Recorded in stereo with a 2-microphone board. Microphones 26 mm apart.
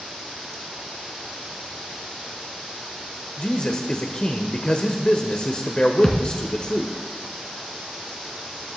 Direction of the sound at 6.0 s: 20° left (ahead or behind).